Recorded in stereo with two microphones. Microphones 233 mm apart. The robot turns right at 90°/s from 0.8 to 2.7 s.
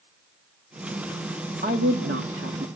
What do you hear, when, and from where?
1.6 s a woman speaking: 135° right, 1.5 m; by 2.7 s 45° right, 1.5 m